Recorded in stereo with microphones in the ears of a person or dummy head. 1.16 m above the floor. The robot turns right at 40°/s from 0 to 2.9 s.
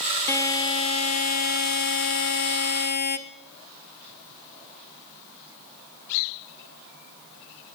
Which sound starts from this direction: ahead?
A buzzer, at 0.3 s.